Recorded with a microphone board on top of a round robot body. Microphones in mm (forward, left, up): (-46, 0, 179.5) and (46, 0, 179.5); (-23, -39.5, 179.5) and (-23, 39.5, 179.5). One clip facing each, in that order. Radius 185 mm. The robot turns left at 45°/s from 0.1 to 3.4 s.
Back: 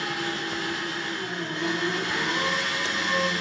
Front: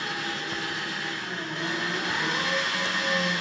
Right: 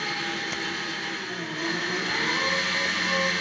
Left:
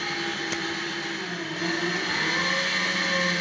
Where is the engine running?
170° left, 1.3 m; by 3.4 s 20° left, 1.3 m.